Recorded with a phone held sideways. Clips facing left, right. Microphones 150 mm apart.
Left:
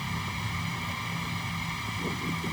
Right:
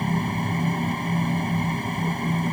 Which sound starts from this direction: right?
A fan, at 0.0 s.